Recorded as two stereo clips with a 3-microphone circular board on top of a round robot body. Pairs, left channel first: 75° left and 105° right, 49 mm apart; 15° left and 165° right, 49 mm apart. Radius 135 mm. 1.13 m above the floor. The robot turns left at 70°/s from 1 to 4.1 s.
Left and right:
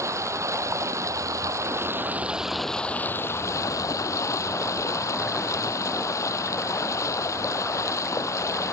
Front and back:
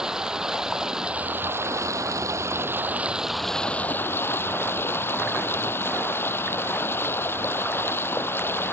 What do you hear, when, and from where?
0.0 s running water: 85° right; by 8.7 s 55° left